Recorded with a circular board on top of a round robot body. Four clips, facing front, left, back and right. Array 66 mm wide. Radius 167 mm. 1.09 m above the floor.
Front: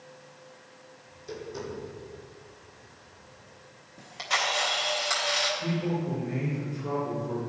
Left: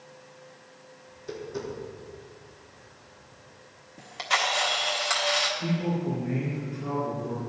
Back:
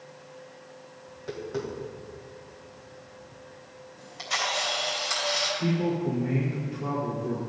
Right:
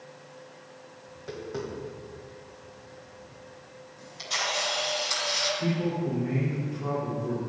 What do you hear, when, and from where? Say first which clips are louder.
1.1 s tapping: left 1 dB, back 5 dB; 145° right, 2.5 m
4.0 s a camera shutter: left 6 dB, front 2 dB; 75° left, 1.5 m
5.6 s a man speaking: even, back 3 dB; 155° right, 4 m